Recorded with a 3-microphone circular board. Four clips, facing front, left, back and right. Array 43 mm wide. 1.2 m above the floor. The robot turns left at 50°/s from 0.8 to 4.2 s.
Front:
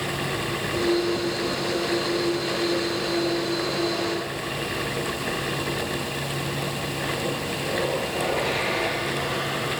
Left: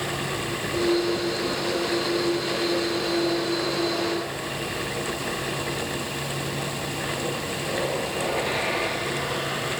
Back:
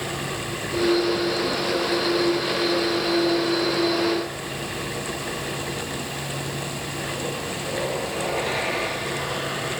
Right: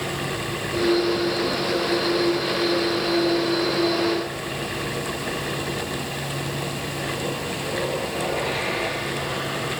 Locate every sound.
Only background noise.